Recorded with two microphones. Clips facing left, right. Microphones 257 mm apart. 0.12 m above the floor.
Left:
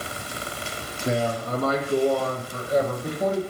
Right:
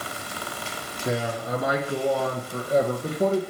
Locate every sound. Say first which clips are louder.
1.1 s a man speaking: left 2 dB; centre (ahead or behind), 1.0 m; by 3.4 s 35° right (ahead or behind), 1.5 m